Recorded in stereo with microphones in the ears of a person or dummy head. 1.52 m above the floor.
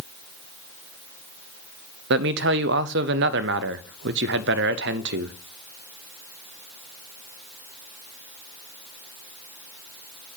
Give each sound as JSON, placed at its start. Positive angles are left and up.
{"t": 2.1, "sound": "a man speaking", "side_deg": -50, "distance_m": 0.5}